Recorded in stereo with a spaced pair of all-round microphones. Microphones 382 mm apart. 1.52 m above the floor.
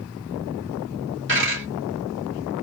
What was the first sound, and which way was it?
A dropped coin, 30° right (ahead or behind).